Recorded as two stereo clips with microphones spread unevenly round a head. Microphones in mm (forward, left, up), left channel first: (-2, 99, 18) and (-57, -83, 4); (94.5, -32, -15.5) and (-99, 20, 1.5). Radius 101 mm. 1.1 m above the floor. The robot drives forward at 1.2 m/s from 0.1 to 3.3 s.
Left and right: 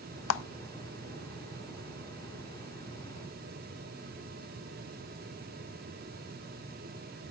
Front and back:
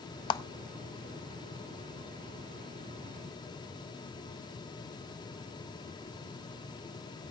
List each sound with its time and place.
0.3 s a clap: 55° left, 0.6 m; by 0.4 s 65° left, 0.5 m